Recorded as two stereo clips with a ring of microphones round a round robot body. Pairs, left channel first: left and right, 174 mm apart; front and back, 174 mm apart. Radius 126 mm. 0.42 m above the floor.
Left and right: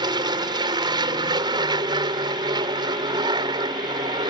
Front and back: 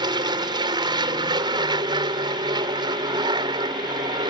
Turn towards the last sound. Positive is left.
turn(degrees=-135)